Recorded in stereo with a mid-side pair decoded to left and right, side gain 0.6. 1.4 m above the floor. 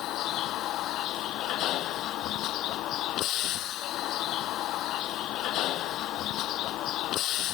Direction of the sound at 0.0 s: 60° left.